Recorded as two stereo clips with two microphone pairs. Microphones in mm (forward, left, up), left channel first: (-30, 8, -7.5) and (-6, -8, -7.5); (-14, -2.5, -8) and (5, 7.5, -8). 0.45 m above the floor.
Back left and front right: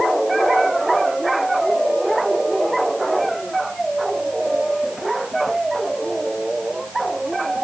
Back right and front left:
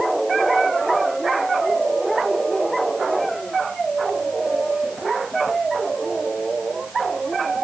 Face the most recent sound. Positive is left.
No sound to turn to.